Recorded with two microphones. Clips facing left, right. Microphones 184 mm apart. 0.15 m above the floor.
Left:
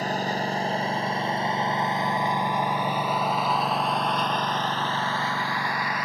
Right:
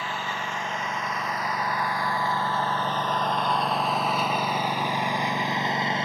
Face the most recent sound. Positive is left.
turn(degrees=-25)  # may be behind; listen again after turning